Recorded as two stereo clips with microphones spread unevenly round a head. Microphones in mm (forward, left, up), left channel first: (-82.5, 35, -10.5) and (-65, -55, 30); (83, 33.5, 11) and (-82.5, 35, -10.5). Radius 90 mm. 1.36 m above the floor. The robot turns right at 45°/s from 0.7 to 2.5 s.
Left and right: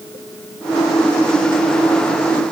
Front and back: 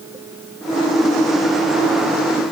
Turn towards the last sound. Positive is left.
No sound to turn to.